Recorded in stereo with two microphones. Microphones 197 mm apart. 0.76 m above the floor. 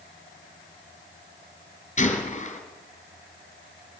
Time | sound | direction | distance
2.0 | a gunshot | 35° left (ahead or behind) | 3 m